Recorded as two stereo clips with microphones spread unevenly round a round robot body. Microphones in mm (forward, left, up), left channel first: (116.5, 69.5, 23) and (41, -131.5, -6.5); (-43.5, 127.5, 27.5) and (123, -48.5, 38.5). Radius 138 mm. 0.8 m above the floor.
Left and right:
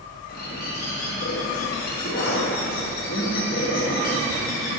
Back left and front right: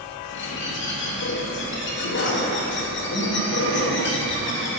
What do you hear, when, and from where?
0.3 s a bird: 120° left, 1.4 m